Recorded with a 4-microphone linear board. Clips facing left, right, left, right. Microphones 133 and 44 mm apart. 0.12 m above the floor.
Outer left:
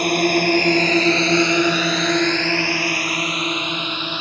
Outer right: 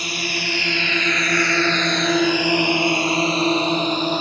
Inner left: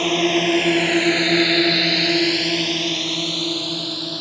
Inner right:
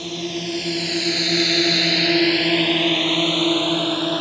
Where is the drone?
60° left (ahead or behind); by 4.2 s 40° right (ahead or behind).